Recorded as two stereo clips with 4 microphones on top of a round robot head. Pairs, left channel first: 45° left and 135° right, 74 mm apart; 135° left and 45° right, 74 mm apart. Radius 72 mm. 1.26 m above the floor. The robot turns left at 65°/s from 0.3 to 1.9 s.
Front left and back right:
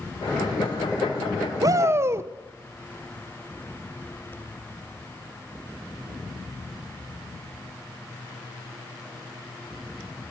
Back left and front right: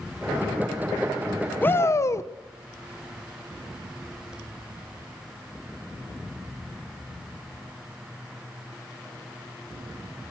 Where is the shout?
165° right, 1.2 m; by 2.3 s straight behind, 1.2 m.